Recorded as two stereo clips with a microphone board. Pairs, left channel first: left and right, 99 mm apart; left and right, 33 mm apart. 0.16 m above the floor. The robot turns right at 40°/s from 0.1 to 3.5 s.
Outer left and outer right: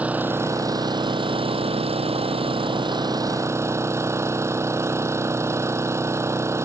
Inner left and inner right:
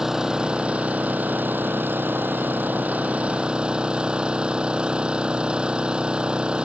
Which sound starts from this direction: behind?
An engine running, at 0.0 s.